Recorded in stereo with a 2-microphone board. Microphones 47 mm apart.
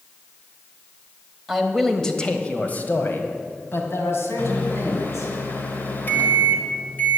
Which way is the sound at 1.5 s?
5° right (ahead or behind).